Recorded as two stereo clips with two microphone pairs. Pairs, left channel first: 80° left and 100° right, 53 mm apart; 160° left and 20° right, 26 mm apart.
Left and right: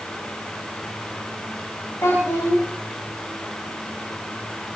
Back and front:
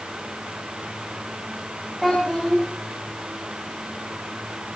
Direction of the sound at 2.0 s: 60° left.